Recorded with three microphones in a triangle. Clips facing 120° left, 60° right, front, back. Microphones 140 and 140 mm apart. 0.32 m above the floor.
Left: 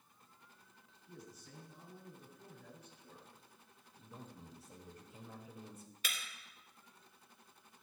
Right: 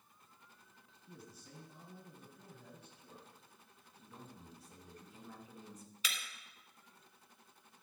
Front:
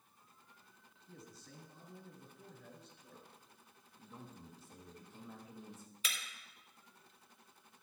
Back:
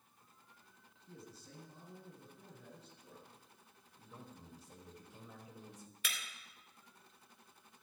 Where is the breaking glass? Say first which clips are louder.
Right 2 dB, even; 155° left, 1.5 m.